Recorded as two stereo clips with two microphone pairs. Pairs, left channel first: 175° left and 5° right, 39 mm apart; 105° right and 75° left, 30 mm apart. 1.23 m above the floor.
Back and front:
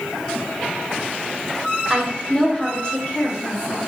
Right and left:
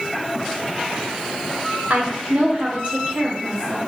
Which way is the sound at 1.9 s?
70° left.